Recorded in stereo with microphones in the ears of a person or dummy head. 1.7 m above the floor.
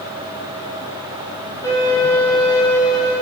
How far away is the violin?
About 1.7 m.